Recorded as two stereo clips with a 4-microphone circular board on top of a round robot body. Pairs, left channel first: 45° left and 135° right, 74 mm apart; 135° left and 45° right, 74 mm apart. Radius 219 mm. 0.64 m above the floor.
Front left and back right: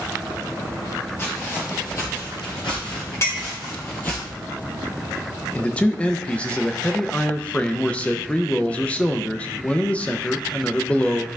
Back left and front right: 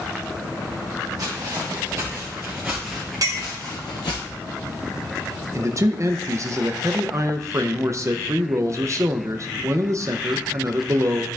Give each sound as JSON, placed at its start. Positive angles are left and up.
{"t": 1.2, "sound": "footsteps", "azimuth_deg": -10, "distance_m": 2.0}
{"t": 3.2, "sound": "a clink", "azimuth_deg": -10, "distance_m": 1.4}
{"t": 5.5, "sound": "a man speaking", "azimuth_deg": -25, "distance_m": 0.7}